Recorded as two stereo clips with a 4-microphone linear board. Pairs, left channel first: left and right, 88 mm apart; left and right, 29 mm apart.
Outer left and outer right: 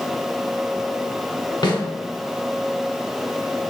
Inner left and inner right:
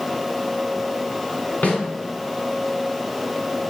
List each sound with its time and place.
1.6 s a snare drum: 65° left (ahead or behind), 1.8 m